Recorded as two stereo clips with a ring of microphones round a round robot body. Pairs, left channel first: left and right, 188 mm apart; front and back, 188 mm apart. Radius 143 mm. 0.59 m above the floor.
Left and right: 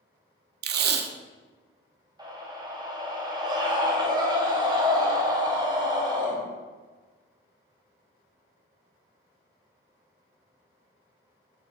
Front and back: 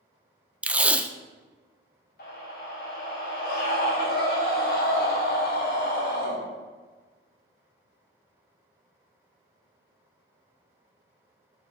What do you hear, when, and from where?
0.6 s tape being pulled: 95° right, 0.6 m
2.2 s a scream: 25° right, 2.5 m